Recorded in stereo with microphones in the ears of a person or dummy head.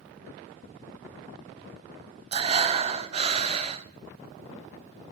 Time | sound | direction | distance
2.3 | breathing | 30° right (ahead or behind) | 0.6 m